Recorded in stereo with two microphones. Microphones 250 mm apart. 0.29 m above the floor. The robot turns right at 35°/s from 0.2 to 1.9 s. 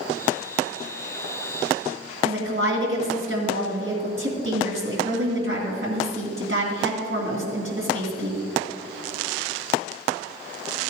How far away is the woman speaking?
About 2 m.